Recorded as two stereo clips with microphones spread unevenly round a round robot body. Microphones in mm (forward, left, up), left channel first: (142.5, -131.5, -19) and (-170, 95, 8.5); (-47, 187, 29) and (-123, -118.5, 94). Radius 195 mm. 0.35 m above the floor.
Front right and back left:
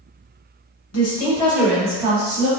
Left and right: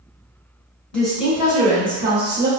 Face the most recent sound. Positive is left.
turn(degrees=-165)